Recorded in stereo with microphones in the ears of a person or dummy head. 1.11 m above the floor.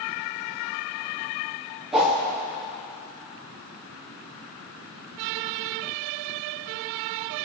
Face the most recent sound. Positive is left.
turn(degrees=0)  # may be behind; listen again after turning